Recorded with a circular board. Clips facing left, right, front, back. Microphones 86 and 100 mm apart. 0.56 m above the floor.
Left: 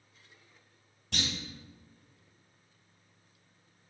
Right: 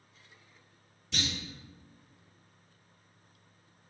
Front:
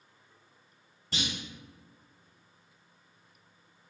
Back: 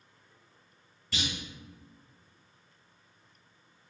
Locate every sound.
1.1 s a clunk: 60° left, 1.7 m